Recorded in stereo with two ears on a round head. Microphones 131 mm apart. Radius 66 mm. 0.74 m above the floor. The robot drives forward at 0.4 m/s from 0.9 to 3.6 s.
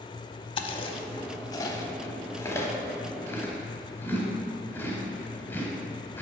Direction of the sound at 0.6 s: 40° left (ahead or behind).